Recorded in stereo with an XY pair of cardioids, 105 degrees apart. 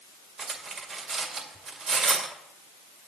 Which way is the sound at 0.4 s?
50° right.